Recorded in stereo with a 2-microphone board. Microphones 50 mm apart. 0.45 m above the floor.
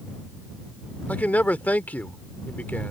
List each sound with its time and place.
1.1 s a man speaking: 35° left (ahead or behind)